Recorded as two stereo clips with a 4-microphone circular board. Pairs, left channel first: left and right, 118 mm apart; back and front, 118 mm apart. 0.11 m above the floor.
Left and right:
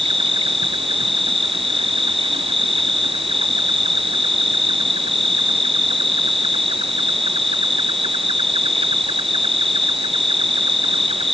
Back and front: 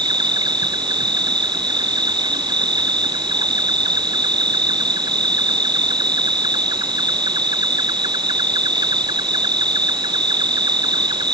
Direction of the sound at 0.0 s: 50° right.